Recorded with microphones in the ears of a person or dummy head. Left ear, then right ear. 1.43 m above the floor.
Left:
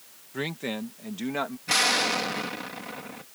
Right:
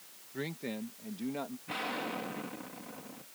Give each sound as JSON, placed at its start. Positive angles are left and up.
{"t": 0.3, "sound": "a man speaking", "side_deg": 40}
{"t": 1.7, "sound": "an explosion", "side_deg": 80}